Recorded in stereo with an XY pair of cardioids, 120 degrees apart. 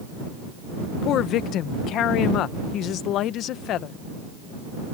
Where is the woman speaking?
70° left.